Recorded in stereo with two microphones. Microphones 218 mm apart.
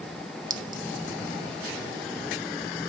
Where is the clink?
40° right (ahead or behind), 0.6 m.